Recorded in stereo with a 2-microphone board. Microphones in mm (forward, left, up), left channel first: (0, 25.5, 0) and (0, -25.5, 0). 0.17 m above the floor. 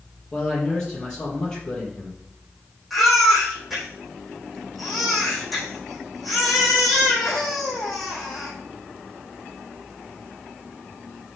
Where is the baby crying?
Centre (ahead or behind), 5.5 m.